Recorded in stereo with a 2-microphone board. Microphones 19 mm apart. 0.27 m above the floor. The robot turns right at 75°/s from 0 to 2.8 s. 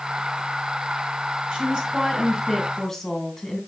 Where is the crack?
I don't hear a crack.